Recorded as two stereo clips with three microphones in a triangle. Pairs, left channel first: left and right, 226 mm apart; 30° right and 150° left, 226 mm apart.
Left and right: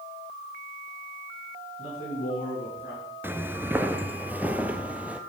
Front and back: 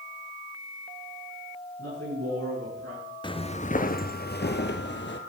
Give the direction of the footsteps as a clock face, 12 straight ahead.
1 o'clock.